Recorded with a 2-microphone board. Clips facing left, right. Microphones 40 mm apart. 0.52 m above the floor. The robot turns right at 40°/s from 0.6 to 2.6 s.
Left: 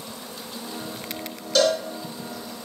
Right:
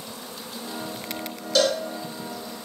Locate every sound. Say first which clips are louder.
1.6 s a cowbell: left 1 dB; centre (ahead or behind), 1.1 m; by 1.8 s 10° right (ahead or behind), 1.1 m